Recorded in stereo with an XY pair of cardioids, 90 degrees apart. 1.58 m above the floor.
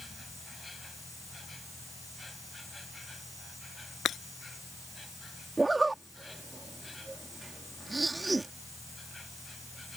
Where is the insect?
20° left.